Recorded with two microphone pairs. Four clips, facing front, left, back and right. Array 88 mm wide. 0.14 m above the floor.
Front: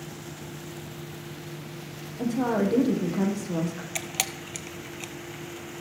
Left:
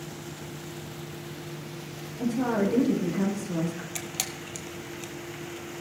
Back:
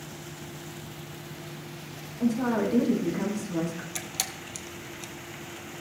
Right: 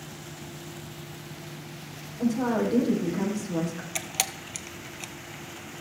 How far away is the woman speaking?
About 4.5 m.